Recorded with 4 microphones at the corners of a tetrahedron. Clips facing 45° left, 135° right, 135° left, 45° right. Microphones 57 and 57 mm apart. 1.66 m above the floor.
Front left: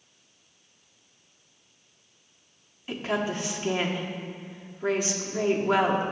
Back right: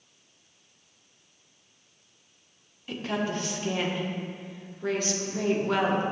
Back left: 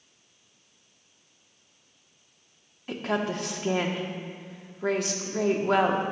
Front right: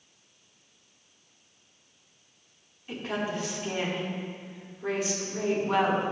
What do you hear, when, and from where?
2.9 s a woman speaking: 115° left, 1.4 m